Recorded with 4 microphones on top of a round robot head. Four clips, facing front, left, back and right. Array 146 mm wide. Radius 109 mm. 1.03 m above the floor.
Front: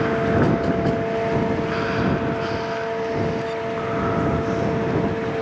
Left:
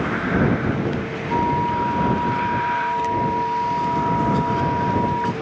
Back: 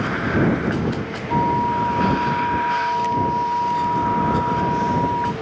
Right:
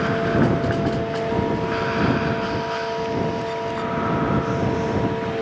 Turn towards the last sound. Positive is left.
turn(degrees=145)